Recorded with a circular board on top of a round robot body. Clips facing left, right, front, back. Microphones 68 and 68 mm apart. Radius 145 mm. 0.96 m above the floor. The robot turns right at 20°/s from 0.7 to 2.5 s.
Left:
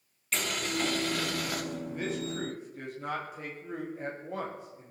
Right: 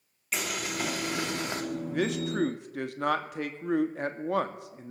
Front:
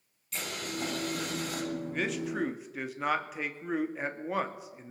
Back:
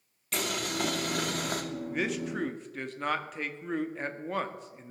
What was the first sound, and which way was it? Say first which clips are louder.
Boiling: left 1 dB, back 5 dB; 170° right.